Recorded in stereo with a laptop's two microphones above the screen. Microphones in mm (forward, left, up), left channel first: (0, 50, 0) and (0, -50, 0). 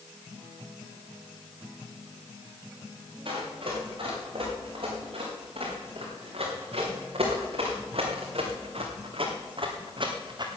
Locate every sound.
3.2 s running footsteps: 60° right (ahead or behind), 6.5 m; by 10.5 s 45° right (ahead or behind), 2.5 m